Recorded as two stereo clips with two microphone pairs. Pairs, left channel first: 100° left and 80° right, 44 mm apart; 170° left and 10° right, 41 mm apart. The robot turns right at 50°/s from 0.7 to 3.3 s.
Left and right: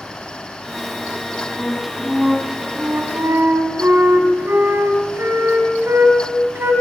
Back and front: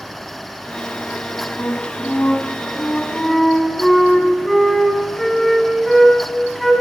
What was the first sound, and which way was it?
A flute, 170° left.